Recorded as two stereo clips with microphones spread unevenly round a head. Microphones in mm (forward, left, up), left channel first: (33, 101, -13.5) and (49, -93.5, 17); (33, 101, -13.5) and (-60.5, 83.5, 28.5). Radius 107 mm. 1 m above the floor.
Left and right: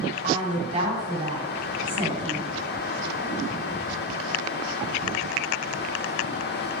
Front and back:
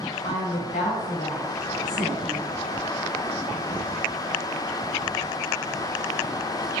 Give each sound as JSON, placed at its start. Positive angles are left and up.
{"t": 0.2, "sound": "a woman speaking", "azimuth_deg": -30, "distance_m": 4.0}